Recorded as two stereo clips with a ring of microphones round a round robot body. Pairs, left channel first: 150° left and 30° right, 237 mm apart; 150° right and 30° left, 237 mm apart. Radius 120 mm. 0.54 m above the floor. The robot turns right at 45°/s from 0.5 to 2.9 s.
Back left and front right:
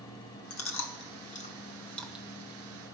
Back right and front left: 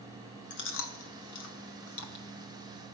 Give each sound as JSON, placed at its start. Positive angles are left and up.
{"t": 0.5, "sound": "chewing", "azimuth_deg": 170, "distance_m": 1.6}